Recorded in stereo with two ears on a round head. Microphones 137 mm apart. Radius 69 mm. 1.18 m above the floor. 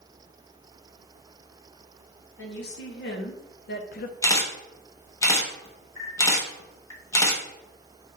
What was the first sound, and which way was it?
A woman speaking, 85° left.